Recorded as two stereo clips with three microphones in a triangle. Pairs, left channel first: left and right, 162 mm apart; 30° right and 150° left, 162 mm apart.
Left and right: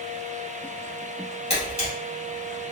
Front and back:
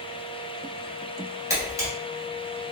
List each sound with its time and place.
1.5 s a camera shutter: 90° left, 1.5 m